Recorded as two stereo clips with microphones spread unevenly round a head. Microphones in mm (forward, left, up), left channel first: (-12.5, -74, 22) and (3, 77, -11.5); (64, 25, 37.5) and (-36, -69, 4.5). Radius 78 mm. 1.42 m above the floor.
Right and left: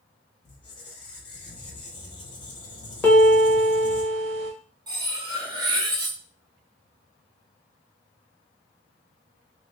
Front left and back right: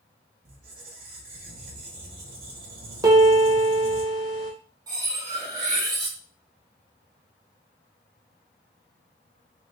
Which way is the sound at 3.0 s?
70° right.